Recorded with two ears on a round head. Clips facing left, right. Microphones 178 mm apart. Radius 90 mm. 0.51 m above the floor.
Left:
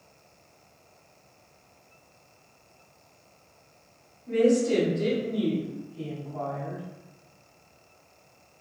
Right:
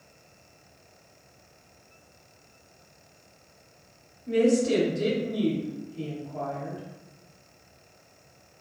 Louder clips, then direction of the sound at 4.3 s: Even; 35° right (ahead or behind).